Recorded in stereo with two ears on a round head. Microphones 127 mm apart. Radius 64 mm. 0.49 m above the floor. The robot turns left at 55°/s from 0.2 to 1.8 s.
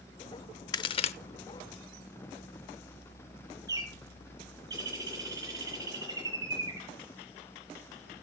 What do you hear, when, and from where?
0.7 s a crack: 30° left (ahead or behind), 0.7 m; by 1.1 s 50° left (ahead or behind), 0.7 m
3.7 s a bird: 25° right (ahead or behind), 4.5 m